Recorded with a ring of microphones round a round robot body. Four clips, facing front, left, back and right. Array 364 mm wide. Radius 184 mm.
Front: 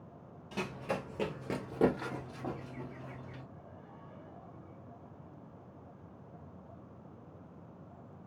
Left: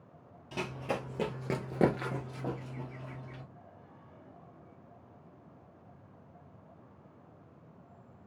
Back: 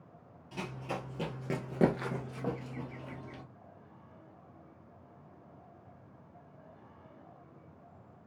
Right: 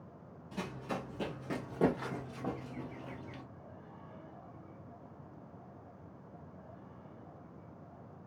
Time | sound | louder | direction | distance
0.5 | running footsteps | left 4 dB, front 2 dB | 65° left | 1.1 m